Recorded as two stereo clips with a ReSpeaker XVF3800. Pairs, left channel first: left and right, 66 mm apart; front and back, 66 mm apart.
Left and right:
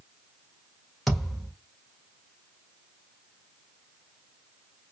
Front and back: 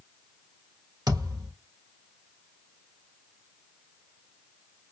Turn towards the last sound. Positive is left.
turn(degrees=180)